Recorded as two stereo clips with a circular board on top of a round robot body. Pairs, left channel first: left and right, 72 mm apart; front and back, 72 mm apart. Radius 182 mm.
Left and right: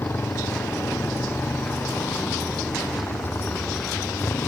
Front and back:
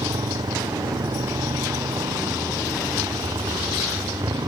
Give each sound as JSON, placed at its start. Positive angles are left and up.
{"t": 0.0, "sound": "a motorcycle", "azimuth_deg": 150}